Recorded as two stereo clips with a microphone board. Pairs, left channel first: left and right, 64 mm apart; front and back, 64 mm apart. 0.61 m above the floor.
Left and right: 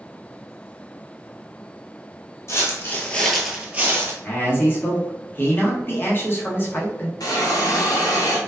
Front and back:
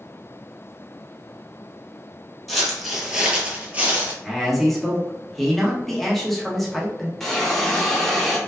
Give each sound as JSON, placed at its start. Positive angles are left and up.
{"t": 2.5, "sound": "footsteps", "azimuth_deg": 85, "distance_m": 0.8}
{"t": 4.2, "sound": "a man speaking", "azimuth_deg": 85, "distance_m": 0.7}
{"t": 7.2, "sound": "a hiss", "azimuth_deg": 85, "distance_m": 0.6}